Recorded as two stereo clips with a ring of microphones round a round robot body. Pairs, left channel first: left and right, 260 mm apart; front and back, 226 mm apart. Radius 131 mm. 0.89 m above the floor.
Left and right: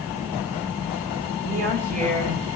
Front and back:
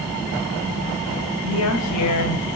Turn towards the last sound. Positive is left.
turn(degrees=-25)